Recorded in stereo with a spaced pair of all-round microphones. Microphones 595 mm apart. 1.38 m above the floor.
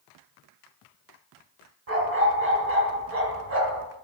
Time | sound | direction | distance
1.9 | a dog barking | 80° right | 5 m